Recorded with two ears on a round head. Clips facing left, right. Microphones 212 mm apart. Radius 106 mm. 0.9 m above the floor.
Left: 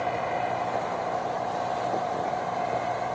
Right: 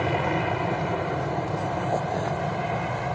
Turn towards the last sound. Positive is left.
turn(degrees=-55)  # may be behind; listen again after turning